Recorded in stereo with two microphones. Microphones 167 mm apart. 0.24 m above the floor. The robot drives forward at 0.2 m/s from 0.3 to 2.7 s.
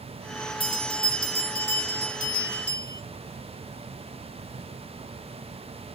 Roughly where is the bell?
Left.